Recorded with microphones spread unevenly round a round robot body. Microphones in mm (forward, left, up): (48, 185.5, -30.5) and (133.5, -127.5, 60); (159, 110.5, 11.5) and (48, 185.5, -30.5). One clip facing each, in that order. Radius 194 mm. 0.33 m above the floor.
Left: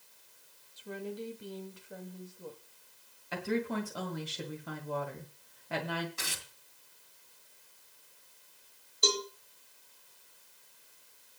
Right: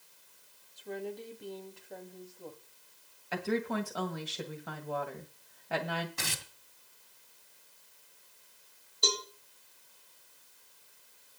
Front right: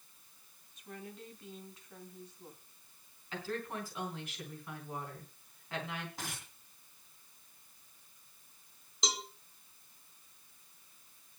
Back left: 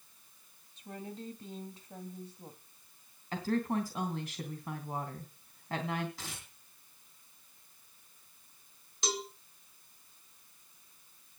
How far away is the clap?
I don't hear a clap.